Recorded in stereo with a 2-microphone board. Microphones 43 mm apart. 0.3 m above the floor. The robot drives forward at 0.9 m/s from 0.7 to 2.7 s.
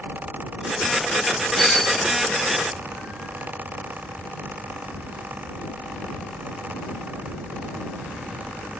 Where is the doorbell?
10° left (ahead or behind).